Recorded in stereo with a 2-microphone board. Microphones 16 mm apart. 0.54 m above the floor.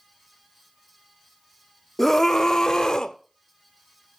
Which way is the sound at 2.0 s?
15° left (ahead or behind).